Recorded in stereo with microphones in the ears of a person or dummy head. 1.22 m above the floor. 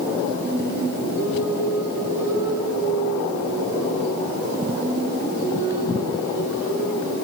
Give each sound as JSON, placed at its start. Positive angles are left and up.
{"t": 0.4, "sound": "singing", "side_deg": -15, "distance_m": 9.5}